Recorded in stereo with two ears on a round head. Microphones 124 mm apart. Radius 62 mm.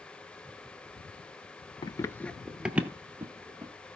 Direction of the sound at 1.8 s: 30° left (ahead or behind).